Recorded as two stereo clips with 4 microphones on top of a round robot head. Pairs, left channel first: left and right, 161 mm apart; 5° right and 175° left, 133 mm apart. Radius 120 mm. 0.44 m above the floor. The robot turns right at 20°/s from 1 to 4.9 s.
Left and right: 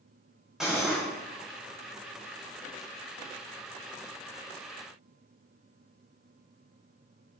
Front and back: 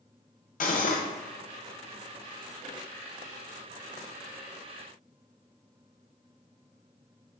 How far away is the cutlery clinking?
About 0.8 m.